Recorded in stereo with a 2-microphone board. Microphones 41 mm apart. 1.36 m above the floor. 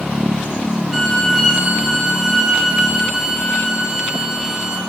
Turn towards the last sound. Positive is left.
turn(degrees=-10)  # may be behind; listen again after turning